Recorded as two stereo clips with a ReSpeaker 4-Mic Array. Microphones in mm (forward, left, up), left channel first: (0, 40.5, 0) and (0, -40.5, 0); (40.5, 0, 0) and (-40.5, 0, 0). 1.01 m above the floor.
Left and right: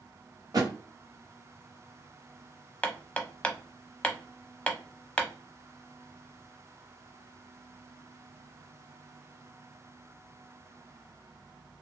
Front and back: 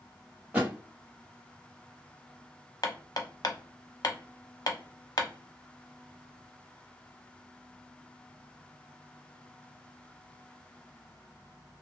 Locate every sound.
0.5 s a thud: 110° right, 1.2 m
2.8 s hammering: 15° left, 0.6 m